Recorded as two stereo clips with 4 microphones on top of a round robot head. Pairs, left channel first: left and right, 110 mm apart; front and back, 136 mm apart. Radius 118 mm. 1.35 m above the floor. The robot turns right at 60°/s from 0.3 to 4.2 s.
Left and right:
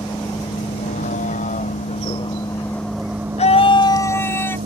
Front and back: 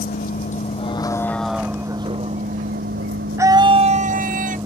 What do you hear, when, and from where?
0.0 s a vehicle: 20° left; by 4.7 s 105° right
3.4 s a scream: 110° left; by 4.6 s 160° left